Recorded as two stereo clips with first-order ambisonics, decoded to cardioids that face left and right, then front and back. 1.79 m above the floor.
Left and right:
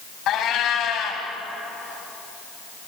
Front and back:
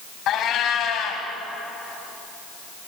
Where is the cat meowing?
45° left, 3 m.